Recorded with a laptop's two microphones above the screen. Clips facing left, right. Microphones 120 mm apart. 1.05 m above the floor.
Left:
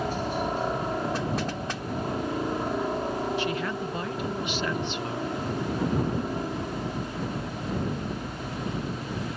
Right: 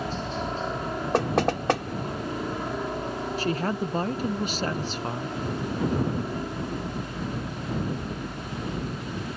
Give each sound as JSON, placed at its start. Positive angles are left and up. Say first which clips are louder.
{"t": 0.0, "sound": "a helicopter", "louder": "left 2 dB", "side_deg": 10}
{"t": 1.1, "sound": "knocking", "louder": "right 6 dB", "side_deg": -70}
{"t": 3.4, "sound": "a woman speaking", "louder": "right 2 dB", "side_deg": -40}